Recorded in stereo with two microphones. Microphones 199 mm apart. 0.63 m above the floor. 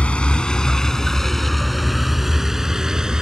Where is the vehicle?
5° left (ahead or behind); by 3.2 s 5° right (ahead or behind).